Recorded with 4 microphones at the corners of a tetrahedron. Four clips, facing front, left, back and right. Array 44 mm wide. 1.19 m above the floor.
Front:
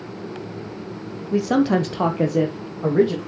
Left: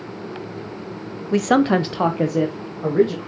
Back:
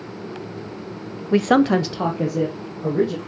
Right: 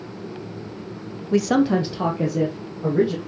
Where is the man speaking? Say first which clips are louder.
Left 2 dB, back 2 dB; 175° left, 0.8 m; by 3.2 s 35° left, 2.5 m.